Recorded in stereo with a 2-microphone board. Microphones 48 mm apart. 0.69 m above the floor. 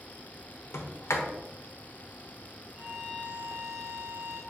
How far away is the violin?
About 1.7 m.